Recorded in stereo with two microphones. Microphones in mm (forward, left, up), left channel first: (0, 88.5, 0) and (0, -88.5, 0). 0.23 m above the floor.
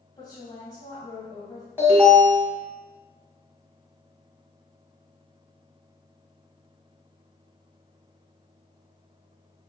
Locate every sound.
0.2 s a woman speaking: 25° left (ahead or behind), 1.5 m
1.8 s an alarm: 10° right (ahead or behind), 1.5 m